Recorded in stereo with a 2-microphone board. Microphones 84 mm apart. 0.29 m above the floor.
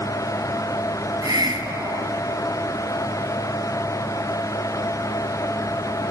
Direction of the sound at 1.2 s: 55° right (ahead or behind).